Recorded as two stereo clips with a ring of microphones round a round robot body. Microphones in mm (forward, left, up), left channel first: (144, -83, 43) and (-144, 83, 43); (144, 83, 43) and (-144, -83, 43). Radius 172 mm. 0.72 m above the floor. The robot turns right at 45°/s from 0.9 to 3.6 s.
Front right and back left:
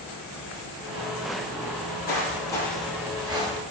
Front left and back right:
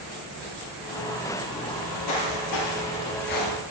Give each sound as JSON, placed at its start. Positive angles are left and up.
{"t": 1.7, "sound": "footsteps", "azimuth_deg": 20, "distance_m": 1.7}